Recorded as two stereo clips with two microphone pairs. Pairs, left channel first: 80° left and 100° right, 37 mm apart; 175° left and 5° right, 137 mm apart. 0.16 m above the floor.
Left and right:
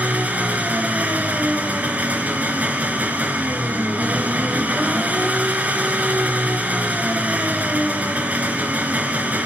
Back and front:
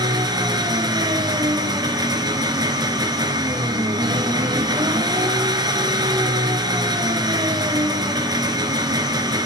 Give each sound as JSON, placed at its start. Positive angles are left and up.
{"t": 0.0, "sound": "an engine running", "azimuth_deg": -60, "distance_m": 2.5}